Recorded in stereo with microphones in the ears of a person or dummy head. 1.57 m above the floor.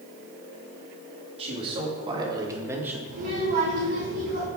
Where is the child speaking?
55° right (ahead or behind), 5 m.